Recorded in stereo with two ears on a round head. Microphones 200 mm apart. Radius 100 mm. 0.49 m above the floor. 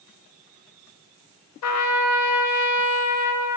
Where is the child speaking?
No child speaking in this recording.